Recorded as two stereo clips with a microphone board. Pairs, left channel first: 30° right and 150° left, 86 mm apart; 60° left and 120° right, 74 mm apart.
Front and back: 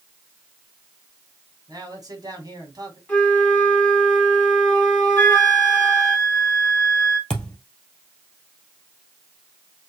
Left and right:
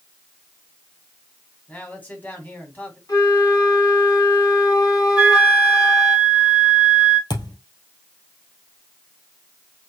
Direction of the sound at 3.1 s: 45° left.